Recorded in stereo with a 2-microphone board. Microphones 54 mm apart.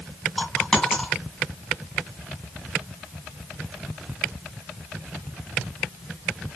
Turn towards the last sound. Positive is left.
turn(degrees=10)  # may be behind; listen again after turning